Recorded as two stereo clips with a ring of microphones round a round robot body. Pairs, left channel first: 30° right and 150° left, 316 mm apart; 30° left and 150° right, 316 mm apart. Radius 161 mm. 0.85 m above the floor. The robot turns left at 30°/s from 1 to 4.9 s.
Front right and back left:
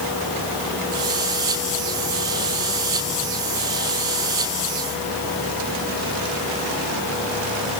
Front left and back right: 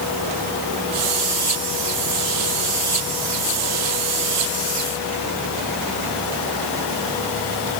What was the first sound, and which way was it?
Only background noise.